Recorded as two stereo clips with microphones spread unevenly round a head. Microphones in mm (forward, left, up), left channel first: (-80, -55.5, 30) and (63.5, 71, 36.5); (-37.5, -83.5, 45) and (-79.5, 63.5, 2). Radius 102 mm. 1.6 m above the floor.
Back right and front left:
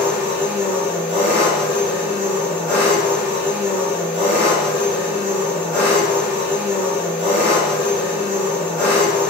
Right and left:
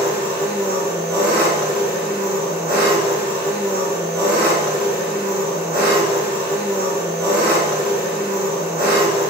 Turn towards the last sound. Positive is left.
turn(degrees=125)